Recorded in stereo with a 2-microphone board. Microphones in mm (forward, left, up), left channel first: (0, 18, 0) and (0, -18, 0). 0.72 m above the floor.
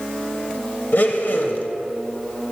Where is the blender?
65° left (ahead or behind), 0.7 m.